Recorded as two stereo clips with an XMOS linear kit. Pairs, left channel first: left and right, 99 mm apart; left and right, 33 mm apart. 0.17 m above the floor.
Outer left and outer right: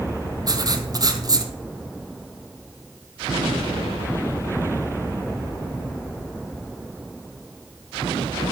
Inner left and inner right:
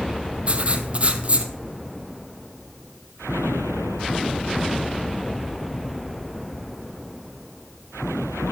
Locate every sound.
0.5 s writing: 40° right (ahead or behind), 1.6 m